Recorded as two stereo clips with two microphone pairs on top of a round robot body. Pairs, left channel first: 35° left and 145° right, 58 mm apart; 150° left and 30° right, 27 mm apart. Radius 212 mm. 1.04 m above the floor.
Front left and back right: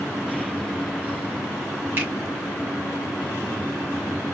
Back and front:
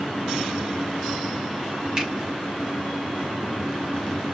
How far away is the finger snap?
About 2.5 m.